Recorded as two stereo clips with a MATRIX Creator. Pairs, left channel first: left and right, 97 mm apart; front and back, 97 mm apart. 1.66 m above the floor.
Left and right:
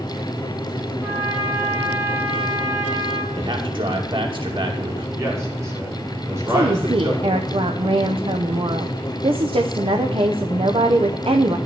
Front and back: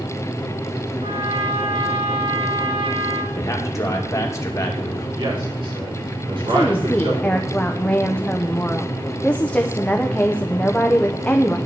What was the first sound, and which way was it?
A trumpet, 160° right.